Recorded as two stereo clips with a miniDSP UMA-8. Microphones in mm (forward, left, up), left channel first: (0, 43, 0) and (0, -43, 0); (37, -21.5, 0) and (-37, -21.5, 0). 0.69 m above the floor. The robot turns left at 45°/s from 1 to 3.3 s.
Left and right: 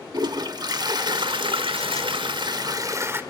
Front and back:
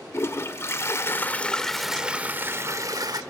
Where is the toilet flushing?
55° right, 1.1 m; by 3.2 s 155° right, 1.1 m.